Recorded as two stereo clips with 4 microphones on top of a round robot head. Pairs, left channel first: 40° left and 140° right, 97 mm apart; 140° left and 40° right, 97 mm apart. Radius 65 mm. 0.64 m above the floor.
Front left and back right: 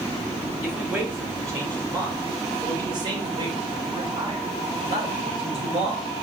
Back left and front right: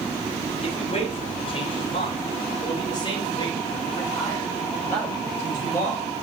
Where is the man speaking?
150° left, 3 m; by 6.1 s 155° right, 4 m.